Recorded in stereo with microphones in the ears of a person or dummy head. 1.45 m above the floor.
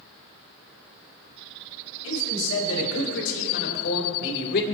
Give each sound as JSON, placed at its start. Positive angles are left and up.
{"t": 2.0, "sound": "a man speaking", "side_deg": 80, "distance_m": 4.0}